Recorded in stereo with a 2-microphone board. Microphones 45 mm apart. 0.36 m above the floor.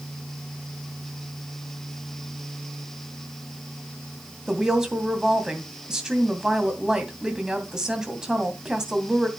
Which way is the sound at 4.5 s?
15° right (ahead or behind).